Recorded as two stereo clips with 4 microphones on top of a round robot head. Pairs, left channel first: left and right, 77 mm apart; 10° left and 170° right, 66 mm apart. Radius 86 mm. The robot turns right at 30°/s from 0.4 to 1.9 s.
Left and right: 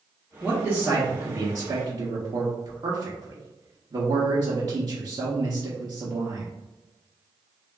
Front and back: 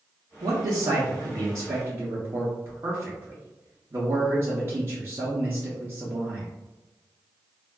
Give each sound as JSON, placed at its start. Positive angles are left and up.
{"t": 0.4, "sound": "a man speaking", "azimuth_deg": -170, "distance_m": 0.8}